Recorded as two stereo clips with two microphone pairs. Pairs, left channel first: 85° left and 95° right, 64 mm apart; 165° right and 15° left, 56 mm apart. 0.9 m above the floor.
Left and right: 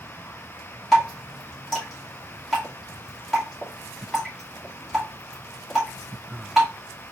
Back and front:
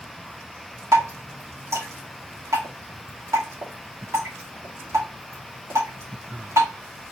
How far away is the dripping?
About 2 m.